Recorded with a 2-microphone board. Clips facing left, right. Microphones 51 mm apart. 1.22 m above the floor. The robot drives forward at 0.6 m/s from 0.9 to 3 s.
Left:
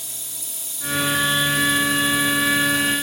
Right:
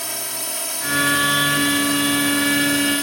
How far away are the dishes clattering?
No dishes clattering in this recording.